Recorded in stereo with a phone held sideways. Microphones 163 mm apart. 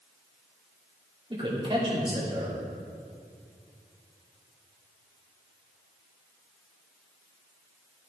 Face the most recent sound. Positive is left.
turn(degrees=-35)  # may be behind; listen again after turning